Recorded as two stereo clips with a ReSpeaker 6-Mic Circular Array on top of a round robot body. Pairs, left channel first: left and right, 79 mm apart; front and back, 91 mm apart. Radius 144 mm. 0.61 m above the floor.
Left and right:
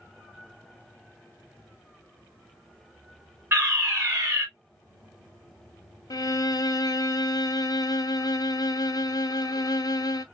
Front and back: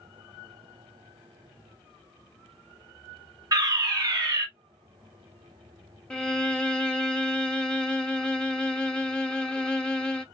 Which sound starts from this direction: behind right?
A fire alarm, at 3.5 s.